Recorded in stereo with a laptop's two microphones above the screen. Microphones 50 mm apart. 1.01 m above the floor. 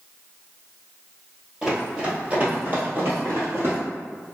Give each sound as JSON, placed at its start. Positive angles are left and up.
{"t": 1.6, "sound": "running footsteps", "side_deg": -10, "distance_m": 1.2}